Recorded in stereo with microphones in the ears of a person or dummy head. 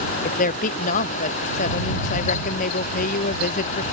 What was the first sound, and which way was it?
A woman speaking, 45° left (ahead or behind).